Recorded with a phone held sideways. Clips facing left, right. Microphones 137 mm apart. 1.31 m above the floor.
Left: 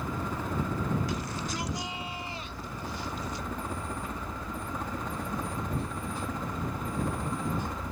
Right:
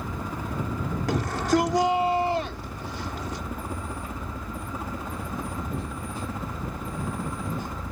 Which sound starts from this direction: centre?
A helicopter, at 0.0 s.